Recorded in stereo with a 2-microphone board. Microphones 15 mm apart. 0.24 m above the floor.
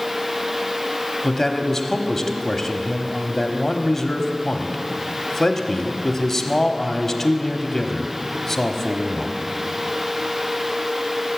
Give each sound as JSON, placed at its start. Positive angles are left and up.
{"t": 1.2, "sound": "a man speaking", "side_deg": 25, "distance_m": 1.1}